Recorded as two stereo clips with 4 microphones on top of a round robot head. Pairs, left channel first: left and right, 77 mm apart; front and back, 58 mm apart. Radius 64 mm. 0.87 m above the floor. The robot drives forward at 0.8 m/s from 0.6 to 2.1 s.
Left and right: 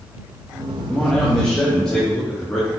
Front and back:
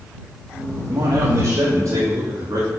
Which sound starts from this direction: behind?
A man speaking, at 0.9 s.